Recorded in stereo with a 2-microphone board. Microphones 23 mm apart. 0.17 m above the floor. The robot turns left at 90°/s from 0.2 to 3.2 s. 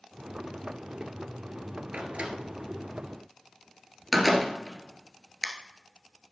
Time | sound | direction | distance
1.9 | a door slam | 55° right (ahead or behind) | 1.7 m